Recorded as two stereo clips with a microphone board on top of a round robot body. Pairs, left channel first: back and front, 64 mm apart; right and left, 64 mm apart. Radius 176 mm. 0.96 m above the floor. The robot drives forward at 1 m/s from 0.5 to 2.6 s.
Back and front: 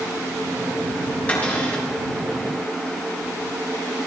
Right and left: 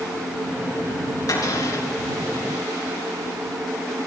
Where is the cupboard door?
115° right, 7 m; by 1.9 s 120° right, 7 m.